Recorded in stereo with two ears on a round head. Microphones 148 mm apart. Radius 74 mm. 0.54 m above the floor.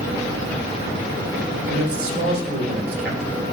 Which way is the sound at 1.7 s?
60° right (ahead or behind).